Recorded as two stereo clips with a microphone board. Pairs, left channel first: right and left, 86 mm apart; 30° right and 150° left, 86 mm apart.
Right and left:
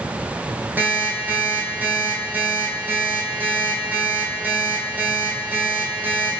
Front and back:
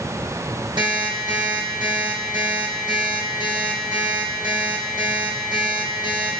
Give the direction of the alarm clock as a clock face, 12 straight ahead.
7 o'clock.